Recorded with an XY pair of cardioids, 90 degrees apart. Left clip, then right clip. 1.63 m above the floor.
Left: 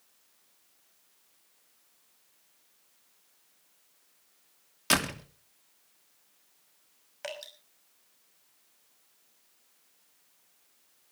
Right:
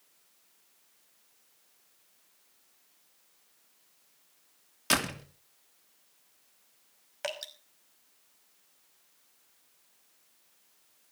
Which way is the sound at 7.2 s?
35° right.